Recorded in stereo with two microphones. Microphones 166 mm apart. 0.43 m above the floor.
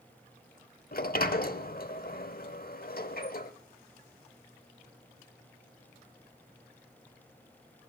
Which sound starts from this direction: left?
A sliding door, at 0.9 s.